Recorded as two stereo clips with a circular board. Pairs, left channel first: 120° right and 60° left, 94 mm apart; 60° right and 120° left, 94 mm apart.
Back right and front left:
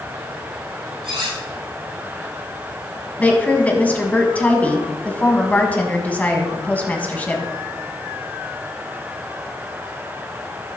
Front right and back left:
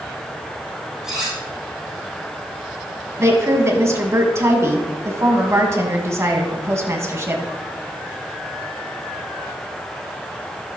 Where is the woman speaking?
170° left, 1.8 m.